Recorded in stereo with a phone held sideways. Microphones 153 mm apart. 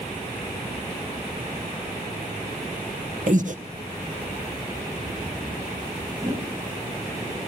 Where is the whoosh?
20° right (ahead or behind), 2.0 m.